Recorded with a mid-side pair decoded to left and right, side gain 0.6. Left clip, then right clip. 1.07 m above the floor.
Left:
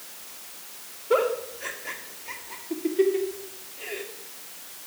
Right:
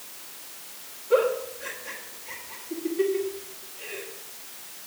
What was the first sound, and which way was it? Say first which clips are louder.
A giggle: right 1 dB; 40° left.